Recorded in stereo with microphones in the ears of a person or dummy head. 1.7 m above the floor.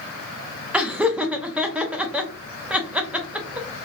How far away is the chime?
No chime in this recording.